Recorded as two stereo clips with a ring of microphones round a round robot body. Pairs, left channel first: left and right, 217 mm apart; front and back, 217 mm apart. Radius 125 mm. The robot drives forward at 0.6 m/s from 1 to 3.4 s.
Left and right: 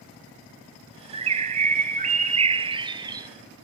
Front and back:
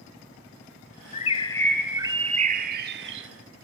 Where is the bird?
40° right, 0.7 m; by 3.3 s 160° right, 1.1 m.